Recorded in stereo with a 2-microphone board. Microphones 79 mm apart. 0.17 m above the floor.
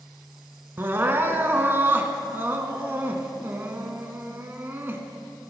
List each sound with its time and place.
0.8 s crying: 30° right (ahead or behind), 0.8 m